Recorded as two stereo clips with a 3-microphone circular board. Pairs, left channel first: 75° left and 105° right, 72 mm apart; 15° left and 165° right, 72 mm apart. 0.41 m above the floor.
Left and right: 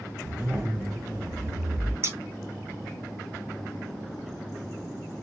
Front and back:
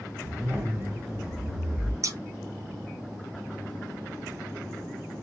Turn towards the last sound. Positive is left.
turn(degrees=-145)